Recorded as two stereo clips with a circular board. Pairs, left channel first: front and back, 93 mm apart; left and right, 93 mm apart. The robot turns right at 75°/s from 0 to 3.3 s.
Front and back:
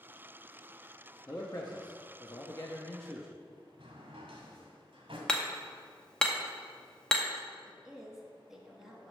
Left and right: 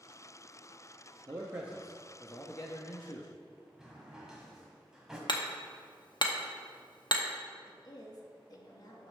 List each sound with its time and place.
1.3 s a man speaking: 50° right, 0.7 m; by 3.3 s 105° left, 0.7 m
3.8 s a drawer: 175° right, 1.7 m
5.3 s hammering: 80° left, 0.8 m
7.7 s a woman speaking: 95° left, 1.3 m